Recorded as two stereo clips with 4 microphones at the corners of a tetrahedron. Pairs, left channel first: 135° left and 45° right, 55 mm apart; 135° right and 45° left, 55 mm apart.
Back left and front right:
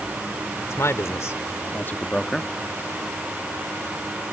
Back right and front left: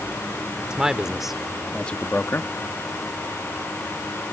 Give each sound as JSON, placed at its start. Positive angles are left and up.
{"t": 0.6, "sound": "a man speaking", "azimuth_deg": 115}